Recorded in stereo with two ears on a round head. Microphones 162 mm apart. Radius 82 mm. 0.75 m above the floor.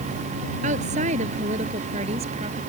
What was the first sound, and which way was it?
A woman speaking, 40° right (ahead or behind).